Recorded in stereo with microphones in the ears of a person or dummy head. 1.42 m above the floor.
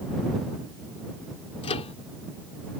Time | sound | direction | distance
1.6 | a microwave | 30° left (ahead or behind) | ?